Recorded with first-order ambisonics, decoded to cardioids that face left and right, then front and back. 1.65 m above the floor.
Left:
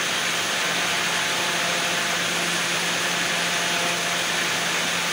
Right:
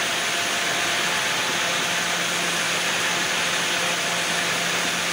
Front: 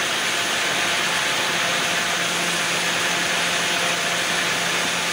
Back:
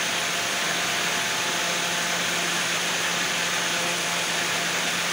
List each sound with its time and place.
Only background noise.